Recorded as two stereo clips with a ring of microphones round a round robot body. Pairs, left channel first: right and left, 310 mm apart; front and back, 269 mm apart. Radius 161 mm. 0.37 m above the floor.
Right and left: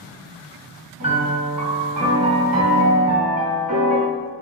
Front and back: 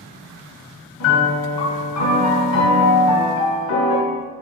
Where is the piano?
20° left, 1.8 m.